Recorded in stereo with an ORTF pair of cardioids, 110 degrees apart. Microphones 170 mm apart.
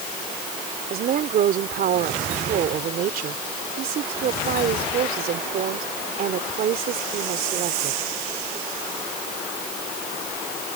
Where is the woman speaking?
60° right.